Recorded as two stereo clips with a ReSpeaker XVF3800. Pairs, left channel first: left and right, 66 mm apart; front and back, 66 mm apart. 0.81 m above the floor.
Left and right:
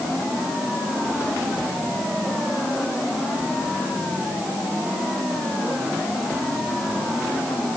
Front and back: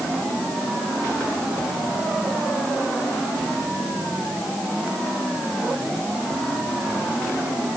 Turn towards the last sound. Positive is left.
No sound to turn to.